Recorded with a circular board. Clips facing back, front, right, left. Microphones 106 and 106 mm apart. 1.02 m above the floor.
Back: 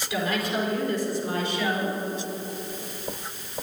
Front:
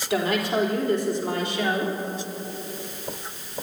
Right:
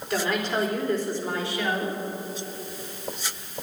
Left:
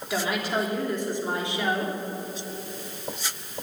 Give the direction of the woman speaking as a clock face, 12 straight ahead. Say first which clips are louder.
Front 4 dB, right 1 dB; 12 o'clock.